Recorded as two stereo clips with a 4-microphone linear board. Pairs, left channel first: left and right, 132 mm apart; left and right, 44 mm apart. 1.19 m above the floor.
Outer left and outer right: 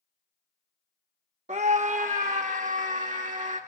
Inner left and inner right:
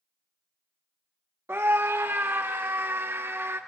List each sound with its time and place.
1.5 s a scream: 60° right (ahead or behind), 0.7 m; by 3.6 s 70° right (ahead or behind), 2.0 m